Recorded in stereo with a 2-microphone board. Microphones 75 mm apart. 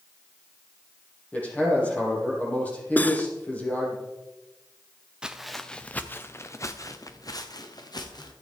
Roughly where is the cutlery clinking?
Left.